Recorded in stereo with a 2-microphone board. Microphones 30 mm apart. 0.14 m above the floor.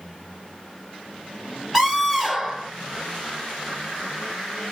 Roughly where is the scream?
Centre.